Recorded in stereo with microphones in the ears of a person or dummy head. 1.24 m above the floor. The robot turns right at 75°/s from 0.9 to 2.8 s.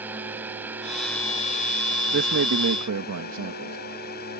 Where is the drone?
10° right; by 4.4 s 130° left.